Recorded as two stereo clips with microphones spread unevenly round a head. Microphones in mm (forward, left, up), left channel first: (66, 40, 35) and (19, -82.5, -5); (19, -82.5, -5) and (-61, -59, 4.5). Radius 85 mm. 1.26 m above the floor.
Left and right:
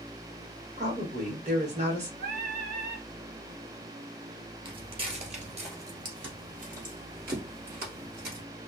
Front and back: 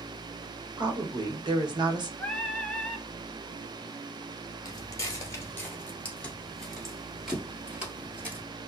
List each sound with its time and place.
0.8 s a woman speaking: 165° right, 1.0 m
2.2 s singing: 95° right, 0.8 m
4.7 s footsteps: 50° right, 1.7 m; by 8.4 s 140° right, 2 m